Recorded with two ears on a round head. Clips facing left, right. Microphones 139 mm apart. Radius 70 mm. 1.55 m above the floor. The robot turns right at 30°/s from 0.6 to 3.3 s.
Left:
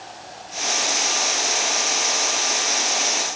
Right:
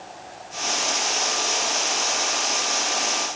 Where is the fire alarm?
No fire alarm in this recording.